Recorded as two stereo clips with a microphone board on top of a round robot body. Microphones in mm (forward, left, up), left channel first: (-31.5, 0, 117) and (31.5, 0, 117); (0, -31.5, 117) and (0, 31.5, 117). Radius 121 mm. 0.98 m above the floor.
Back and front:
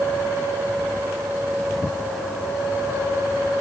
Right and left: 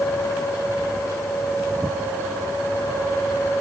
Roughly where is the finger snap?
I don't hear a finger snap.